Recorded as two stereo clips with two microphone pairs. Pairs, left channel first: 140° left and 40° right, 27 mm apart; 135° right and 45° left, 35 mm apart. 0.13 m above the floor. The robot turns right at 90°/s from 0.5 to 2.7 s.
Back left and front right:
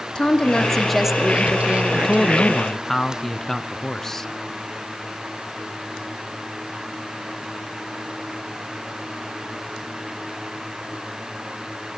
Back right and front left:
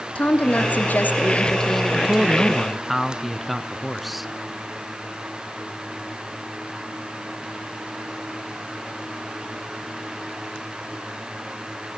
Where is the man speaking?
60° left, 1.1 m; by 4.3 s 130° left, 1.1 m.